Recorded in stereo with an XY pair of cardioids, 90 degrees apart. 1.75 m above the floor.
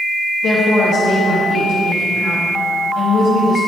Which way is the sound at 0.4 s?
55° left.